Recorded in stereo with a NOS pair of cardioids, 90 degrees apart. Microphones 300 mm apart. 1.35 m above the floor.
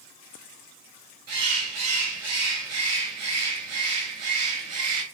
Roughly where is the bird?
Ahead right.